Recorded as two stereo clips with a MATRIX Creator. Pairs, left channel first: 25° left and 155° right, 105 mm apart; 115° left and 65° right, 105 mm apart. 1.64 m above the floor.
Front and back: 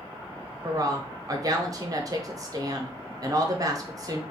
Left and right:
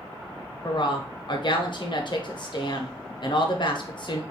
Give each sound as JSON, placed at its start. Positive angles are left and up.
{"t": 0.6, "sound": "a woman speaking", "azimuth_deg": 150, "distance_m": 0.8}